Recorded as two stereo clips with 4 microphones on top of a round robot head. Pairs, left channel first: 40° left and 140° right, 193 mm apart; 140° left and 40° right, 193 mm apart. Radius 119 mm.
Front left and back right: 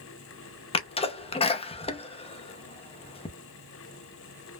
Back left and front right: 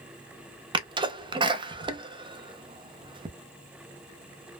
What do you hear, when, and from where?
0.7 s a sneeze: 5° left, 0.7 m